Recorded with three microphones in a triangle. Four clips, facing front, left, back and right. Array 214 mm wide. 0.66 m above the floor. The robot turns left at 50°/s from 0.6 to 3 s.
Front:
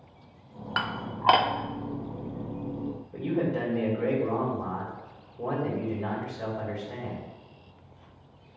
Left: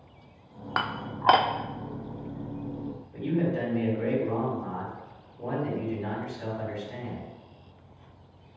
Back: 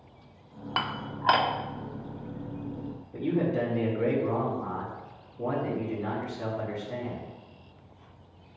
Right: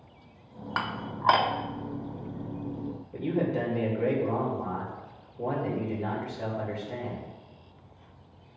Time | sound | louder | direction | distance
0.8 | dishes clattering | left 2 dB, front 1 dB | 105° left | 0.7 m
3.1 | a man speaking | even, back 1 dB | 40° right | 3 m